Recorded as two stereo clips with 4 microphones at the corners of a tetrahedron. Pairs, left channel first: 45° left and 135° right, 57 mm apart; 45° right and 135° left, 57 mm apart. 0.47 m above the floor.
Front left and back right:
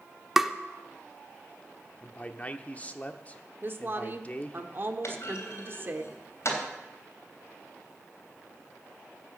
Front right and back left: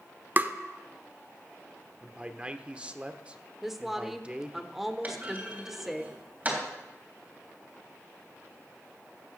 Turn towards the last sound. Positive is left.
turn(degrees=75)